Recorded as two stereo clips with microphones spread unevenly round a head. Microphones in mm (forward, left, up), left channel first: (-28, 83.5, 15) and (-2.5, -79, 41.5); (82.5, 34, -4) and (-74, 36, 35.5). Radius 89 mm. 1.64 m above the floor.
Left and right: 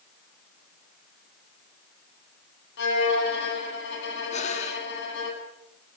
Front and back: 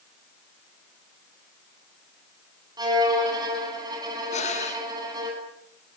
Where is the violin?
115° left, 9 m.